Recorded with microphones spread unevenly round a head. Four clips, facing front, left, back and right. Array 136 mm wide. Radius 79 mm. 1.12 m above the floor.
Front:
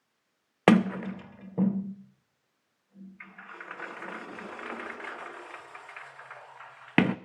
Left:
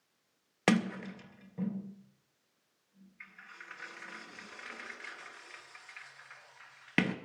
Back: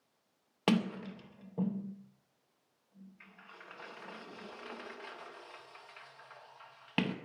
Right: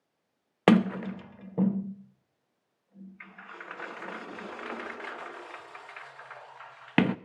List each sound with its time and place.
0.7 s a sliding door: 25° right, 0.6 m